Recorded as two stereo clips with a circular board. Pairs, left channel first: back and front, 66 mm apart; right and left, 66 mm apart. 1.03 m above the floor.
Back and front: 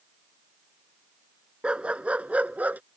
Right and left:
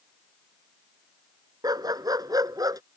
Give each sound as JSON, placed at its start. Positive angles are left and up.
{"t": 1.6, "sound": "a dog barking", "azimuth_deg": 70}